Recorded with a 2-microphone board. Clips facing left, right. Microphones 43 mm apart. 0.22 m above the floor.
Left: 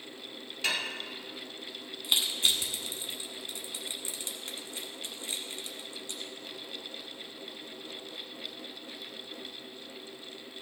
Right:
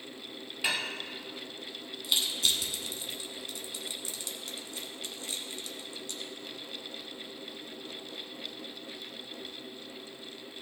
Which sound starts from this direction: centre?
Dishes clattering, at 0.6 s.